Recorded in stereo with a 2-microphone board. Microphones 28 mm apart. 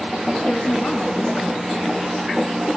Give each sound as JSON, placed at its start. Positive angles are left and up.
{"t": 0.5, "sound": "a woman speaking", "side_deg": 65, "distance_m": 2.5}